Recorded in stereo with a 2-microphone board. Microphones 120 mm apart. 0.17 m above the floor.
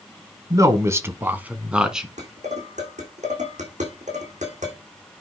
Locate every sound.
0.5 s a man speaking: 30° right (ahead or behind), 1.2 m; by 2.1 s 5° right (ahead or behind), 1.5 m
2.2 s dishes clattering: 75° right (ahead or behind), 6 m